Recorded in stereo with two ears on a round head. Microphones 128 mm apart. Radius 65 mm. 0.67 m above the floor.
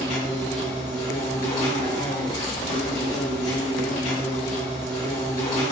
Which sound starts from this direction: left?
An insect, at 0.0 s.